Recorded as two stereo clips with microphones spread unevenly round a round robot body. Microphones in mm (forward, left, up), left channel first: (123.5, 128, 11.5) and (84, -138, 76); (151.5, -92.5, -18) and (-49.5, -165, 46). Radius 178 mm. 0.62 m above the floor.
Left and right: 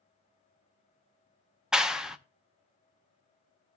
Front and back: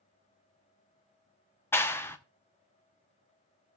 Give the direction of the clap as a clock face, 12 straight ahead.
11 o'clock.